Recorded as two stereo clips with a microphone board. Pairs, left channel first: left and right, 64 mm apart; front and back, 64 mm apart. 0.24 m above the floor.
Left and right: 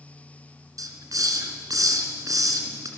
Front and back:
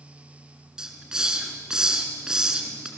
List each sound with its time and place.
0.8 s a hiss: 100° right, 3.5 m